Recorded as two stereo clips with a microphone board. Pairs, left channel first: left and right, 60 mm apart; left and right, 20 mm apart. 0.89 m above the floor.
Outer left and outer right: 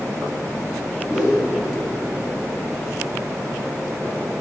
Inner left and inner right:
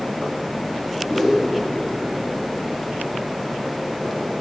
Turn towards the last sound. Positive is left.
turn(degrees=-15)  # may be behind; listen again after turning